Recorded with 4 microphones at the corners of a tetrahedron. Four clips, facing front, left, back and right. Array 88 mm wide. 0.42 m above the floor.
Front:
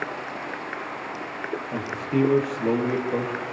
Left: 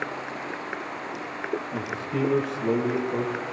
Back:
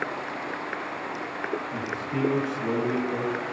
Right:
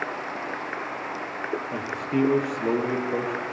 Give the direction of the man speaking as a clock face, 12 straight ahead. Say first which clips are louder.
Right 3 dB, front 4 dB; 2 o'clock.